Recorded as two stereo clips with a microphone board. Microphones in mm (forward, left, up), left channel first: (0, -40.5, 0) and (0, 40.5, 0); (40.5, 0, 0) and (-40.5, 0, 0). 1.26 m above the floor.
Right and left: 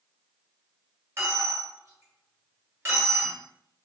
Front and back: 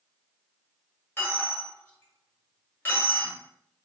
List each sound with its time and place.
1.2 s a dropped coin: 50° left, 1.3 m